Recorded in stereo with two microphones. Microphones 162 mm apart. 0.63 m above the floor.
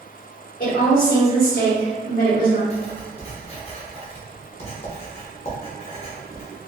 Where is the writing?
35° left (ahead or behind), 0.8 m.